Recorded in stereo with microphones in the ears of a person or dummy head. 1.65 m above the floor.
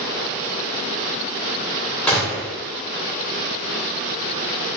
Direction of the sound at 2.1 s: 15° left (ahead or behind).